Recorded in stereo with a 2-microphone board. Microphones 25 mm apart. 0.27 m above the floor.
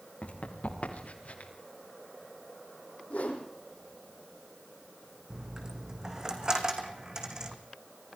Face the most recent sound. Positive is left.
turn(degrees=-30)  # may be behind; listen again after turning